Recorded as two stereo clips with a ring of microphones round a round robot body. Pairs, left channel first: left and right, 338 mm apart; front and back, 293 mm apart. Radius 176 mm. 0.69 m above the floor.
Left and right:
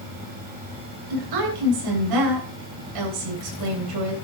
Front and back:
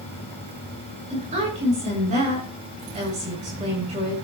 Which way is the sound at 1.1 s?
110° right.